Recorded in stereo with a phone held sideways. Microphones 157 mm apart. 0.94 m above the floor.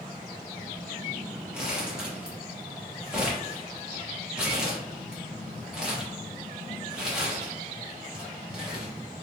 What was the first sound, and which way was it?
Crumpling, 5° right (ahead or behind).